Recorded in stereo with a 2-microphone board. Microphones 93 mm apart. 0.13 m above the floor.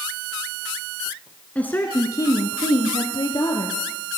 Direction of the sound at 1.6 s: 15° left (ahead or behind).